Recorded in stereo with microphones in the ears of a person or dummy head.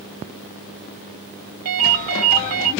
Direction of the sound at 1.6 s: 70° right (ahead or behind).